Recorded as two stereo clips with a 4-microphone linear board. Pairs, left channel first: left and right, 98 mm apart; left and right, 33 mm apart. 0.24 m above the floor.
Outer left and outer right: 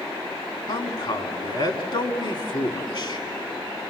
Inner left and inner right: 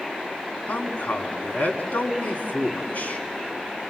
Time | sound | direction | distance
0.7 | a man speaking | 55° left (ahead or behind) | 2 m